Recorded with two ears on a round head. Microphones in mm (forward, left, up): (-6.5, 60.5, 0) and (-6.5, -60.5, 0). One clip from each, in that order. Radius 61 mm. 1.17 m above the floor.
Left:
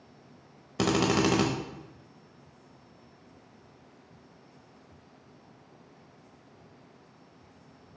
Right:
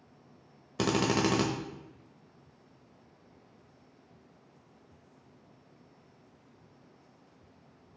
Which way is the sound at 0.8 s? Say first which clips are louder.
Left 3 dB; 5° right (ahead or behind).